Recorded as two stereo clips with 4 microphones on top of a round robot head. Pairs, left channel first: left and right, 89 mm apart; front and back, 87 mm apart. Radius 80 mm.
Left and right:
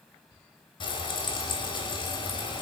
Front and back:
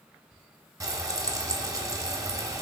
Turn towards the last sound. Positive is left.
turn(degrees=125)